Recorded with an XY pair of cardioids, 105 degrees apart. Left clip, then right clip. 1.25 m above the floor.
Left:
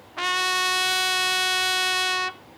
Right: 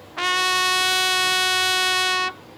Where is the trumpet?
20° right, 0.7 m.